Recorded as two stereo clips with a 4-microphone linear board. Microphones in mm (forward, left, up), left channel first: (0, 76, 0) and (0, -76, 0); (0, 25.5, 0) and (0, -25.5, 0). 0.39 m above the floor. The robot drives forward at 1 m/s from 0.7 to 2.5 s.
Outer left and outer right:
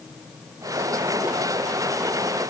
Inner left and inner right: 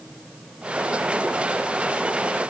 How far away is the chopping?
I don't hear chopping.